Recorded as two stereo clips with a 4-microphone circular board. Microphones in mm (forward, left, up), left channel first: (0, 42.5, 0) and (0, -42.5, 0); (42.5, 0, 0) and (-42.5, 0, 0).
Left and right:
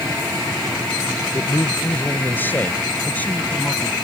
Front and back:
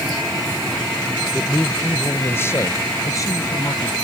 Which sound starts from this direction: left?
A man speaking, at 1.3 s.